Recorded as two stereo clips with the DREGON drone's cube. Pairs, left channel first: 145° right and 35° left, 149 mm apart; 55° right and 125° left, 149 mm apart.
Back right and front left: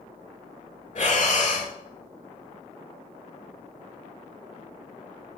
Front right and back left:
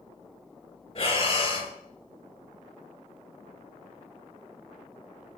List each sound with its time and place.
0.9 s breathing: 110° right, 0.7 m